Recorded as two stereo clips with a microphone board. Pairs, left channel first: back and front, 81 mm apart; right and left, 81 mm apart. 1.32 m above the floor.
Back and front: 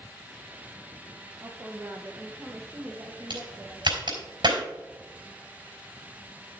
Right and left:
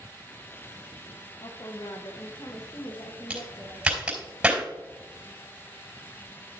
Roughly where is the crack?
Ahead.